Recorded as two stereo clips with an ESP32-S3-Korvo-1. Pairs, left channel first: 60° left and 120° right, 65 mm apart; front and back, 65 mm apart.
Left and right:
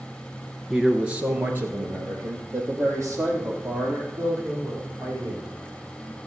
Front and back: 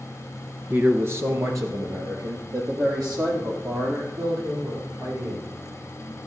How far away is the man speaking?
About 1.6 m.